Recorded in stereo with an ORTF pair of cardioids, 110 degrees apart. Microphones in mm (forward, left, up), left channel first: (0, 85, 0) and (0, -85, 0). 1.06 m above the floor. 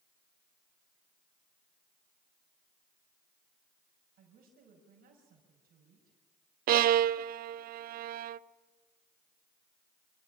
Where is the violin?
60° right, 0.6 m.